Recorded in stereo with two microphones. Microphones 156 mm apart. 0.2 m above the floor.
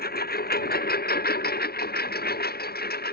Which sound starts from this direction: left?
A lawn mower, at 0.0 s.